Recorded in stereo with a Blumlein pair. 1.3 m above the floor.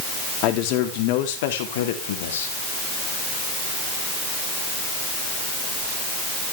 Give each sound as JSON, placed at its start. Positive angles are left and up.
{"t": 0.4, "sound": "a man speaking", "azimuth_deg": 40, "distance_m": 3.5}